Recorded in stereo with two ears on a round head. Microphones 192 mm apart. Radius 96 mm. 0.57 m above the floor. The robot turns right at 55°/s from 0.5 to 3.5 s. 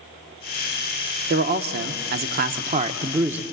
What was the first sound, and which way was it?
A man speaking, 125° right.